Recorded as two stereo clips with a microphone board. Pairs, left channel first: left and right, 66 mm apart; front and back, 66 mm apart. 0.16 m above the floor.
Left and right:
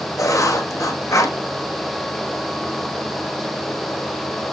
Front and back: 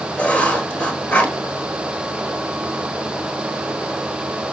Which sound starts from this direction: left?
Writing, at 0.2 s.